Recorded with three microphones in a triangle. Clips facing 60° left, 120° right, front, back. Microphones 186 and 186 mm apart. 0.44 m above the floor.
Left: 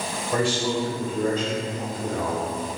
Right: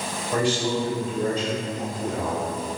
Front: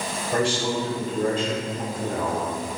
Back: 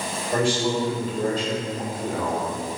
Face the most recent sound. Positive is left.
turn(degrees=-105)